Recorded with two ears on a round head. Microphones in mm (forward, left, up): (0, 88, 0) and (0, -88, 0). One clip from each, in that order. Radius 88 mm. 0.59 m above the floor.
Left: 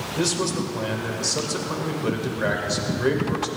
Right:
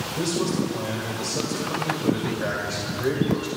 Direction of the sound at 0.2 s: 25° left (ahead or behind).